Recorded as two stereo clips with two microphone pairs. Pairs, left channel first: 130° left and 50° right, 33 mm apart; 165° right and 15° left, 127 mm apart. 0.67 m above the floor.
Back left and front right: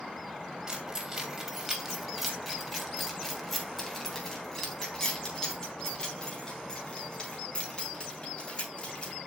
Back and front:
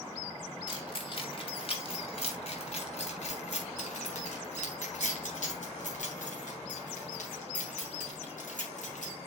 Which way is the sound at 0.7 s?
115° right.